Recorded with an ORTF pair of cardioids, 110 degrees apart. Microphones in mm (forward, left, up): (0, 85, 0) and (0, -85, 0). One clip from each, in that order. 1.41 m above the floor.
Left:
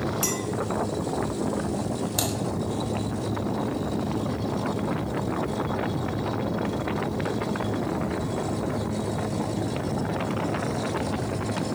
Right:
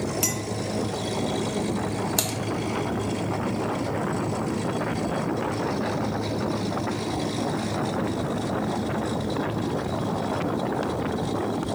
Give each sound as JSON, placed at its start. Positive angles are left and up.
{"t": 0.2, "sound": "a clink", "azimuth_deg": -10, "distance_m": 1.6}
{"t": 2.2, "sound": "typing on a keyboard", "azimuth_deg": -25, "distance_m": 1.3}